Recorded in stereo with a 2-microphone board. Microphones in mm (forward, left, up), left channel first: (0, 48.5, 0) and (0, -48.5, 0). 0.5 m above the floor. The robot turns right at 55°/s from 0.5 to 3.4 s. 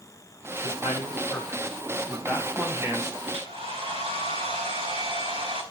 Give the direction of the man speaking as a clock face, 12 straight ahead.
9 o'clock.